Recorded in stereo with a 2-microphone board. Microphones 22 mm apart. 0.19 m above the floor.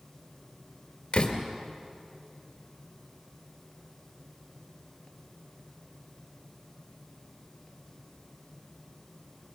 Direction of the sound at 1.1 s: 50° left (ahead or behind).